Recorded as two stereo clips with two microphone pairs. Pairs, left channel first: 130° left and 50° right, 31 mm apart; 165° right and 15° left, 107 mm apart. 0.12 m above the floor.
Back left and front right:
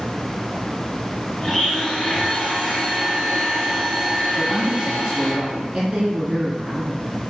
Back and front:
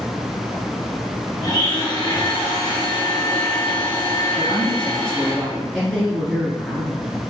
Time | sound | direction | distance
1.4 | a blender | 155° right | 1.6 m
4.3 | a woman speaking | 85° right | 1.6 m